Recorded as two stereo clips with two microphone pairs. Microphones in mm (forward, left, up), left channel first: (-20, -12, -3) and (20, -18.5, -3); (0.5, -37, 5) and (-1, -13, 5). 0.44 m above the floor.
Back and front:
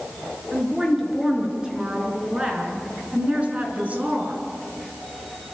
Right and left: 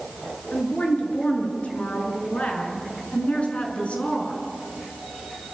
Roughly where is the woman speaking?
Right.